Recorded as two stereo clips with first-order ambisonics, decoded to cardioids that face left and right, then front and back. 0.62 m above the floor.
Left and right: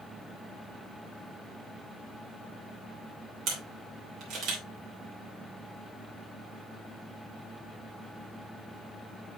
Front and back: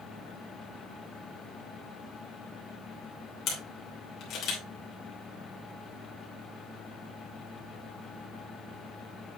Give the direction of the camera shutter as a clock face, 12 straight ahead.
2 o'clock.